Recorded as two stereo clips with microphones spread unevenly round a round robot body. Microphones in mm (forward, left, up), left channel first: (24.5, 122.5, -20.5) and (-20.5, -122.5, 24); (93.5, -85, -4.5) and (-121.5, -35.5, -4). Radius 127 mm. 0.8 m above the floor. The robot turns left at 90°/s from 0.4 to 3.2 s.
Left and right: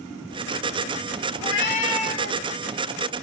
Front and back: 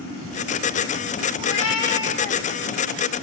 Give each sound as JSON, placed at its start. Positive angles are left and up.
{"t": 1.4, "sound": "a cat meowing", "azimuth_deg": 50, "distance_m": 1.1}